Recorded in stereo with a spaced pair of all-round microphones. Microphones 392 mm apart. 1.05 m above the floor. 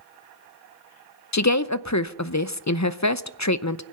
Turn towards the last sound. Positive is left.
turn(degrees=45)  # may be behind; listen again after turning